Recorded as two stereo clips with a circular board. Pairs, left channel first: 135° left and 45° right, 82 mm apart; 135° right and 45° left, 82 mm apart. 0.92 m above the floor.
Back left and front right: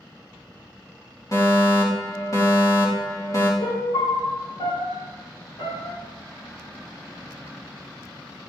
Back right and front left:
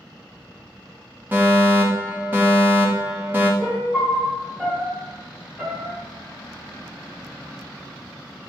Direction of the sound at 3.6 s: 125° left.